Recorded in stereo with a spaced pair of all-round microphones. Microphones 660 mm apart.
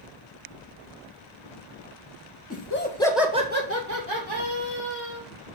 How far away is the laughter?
About 1.3 m.